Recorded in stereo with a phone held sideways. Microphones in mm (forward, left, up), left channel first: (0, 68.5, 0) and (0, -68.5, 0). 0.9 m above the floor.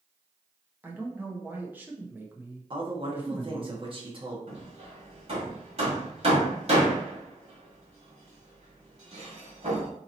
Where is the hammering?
50° right (ahead or behind), 1.5 m.